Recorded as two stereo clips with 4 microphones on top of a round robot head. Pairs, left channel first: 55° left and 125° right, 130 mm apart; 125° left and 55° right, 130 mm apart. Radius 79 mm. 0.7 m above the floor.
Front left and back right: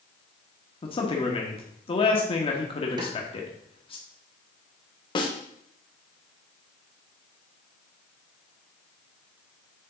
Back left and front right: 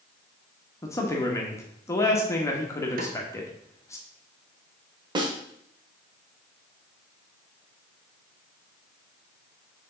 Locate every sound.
0.8 s a man speaking: 65° left, 1.2 m
3.0 s a snare drum: 65° right, 1.0 m
5.2 s a snare drum: straight ahead, 1.1 m